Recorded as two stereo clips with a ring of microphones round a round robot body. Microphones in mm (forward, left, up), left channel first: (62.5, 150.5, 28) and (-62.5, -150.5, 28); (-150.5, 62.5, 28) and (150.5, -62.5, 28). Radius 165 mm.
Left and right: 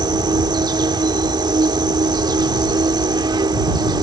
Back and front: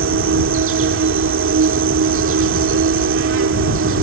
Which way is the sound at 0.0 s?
40° right.